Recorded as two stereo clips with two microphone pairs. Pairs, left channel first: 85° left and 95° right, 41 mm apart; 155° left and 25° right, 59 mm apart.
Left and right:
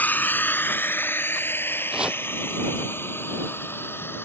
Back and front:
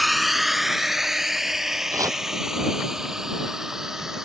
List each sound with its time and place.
0.0 s a drone: 65° left; by 4.2 s 55° left
1.9 s chopping: 25° right